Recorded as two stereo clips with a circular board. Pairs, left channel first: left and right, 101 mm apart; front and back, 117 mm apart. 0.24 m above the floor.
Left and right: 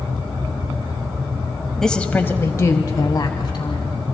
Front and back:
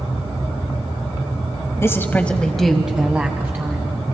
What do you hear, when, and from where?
1.8 s a woman speaking: 10° left, 1.0 m; by 3.9 s 115° left, 1.7 m